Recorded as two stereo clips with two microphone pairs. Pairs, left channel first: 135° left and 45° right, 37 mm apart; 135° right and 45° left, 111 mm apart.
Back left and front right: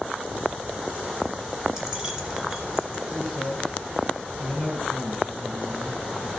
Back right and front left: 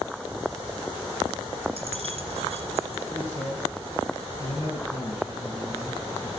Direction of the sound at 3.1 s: 105° right.